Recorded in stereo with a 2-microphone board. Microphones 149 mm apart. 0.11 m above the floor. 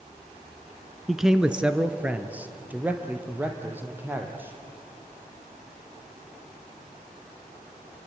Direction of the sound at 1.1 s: Centre (ahead or behind).